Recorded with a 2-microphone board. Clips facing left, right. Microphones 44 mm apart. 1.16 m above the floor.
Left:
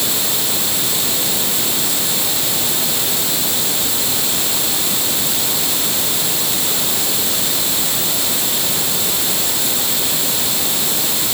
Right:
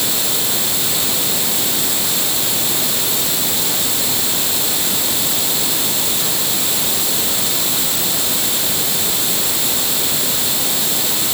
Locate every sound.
Only background noise.